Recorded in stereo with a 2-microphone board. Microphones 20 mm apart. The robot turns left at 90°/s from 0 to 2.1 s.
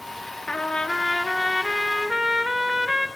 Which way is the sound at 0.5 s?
90° left.